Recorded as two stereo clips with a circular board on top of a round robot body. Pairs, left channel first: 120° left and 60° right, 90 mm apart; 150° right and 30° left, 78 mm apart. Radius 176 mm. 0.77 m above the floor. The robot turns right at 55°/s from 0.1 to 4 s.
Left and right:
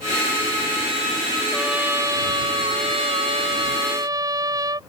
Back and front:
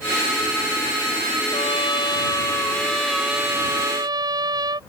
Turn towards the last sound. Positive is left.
turn(degrees=-10)